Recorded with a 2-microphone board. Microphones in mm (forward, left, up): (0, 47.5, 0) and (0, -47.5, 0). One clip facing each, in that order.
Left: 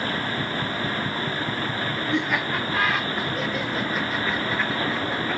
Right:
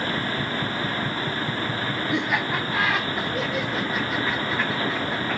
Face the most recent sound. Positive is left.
turn(degrees=-5)  # may be behind; listen again after turning